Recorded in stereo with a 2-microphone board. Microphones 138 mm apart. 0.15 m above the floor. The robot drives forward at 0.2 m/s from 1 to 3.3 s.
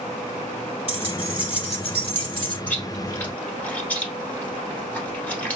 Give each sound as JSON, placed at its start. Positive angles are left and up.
{"t": 0.9, "sound": "keys jangling", "side_deg": 45, "distance_m": 1.4}
{"t": 2.7, "sound": "chewing", "side_deg": 15, "distance_m": 1.0}